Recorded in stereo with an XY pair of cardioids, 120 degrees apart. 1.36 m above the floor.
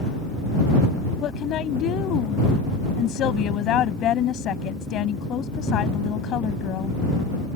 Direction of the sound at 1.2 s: 65° left.